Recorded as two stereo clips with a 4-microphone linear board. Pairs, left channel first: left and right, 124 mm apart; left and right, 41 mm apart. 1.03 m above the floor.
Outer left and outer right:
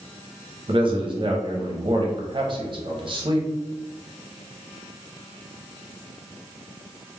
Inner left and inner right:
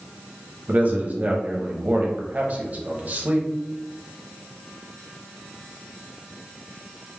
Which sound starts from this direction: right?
A man speaking, at 0.7 s.